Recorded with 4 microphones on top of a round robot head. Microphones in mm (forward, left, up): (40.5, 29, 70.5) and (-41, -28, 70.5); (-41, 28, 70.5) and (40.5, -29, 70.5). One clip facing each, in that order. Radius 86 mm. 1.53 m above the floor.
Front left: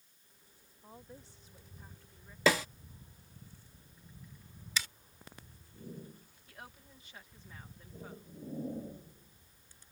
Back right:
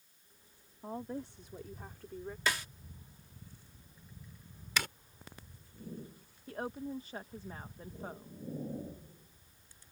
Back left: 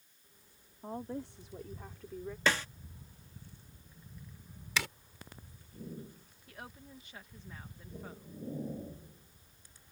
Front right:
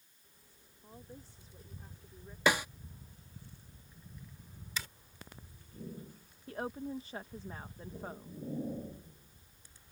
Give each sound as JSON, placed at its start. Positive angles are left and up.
{"t": 0.8, "sound": "a woman speaking", "azimuth_deg": -175}
{"t": 2.5, "sound": "a snare drum", "azimuth_deg": 40}
{"t": 4.8, "sound": "a zipper", "azimuth_deg": 175}
{"t": 6.5, "sound": "a woman speaking", "azimuth_deg": -90}